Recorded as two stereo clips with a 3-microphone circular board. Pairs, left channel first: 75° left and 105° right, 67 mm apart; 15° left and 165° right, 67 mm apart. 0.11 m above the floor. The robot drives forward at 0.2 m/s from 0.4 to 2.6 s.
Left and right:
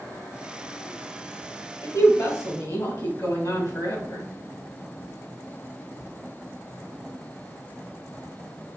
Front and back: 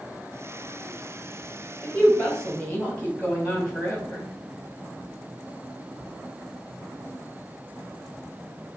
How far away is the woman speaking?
About 2.5 m.